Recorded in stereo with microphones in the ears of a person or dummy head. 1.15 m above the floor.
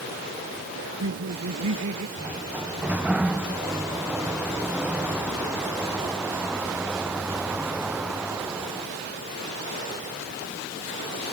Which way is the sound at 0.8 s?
90° right.